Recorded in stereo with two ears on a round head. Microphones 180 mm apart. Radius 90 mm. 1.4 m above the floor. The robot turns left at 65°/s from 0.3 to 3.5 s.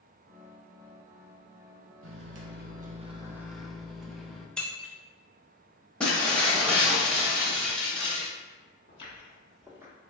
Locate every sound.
2.0 s a microwave: 85° right, 0.6 m; by 4.5 s straight behind, 0.6 m
4.6 s breaking glass: 5° left (ahead or behind), 0.7 m
6.0 s breaking glass: 5° left (ahead or behind), 0.8 m
8.9 s footsteps: 35° left (ahead or behind), 1.8 m; by 9.9 s 15° right (ahead or behind), 1.5 m